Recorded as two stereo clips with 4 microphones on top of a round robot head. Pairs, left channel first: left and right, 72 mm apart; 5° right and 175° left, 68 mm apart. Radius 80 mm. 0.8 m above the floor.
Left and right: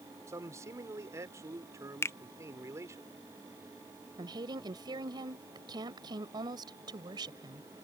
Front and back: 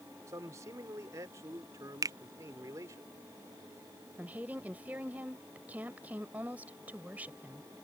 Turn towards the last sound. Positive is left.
turn(degrees=-110)